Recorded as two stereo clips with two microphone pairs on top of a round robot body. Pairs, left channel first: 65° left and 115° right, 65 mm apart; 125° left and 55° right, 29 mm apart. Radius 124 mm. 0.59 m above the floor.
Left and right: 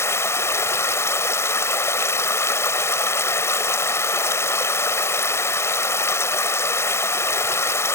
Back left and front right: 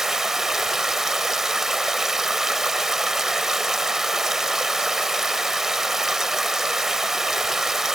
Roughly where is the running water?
Ahead.